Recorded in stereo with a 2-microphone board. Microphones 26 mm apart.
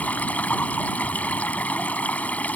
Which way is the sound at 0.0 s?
85° left.